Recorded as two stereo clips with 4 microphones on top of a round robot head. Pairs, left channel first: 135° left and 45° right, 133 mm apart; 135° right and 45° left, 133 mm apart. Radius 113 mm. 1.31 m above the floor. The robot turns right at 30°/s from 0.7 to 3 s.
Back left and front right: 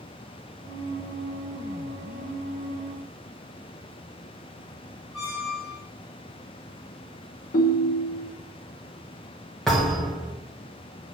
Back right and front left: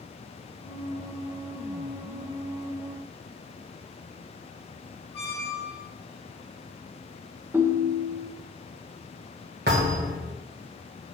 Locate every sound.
5.1 s a squeak: straight behind, 2.5 m
7.5 s a ringtone: 120° left, 0.6 m
9.7 s a thud: 50° left, 1.4 m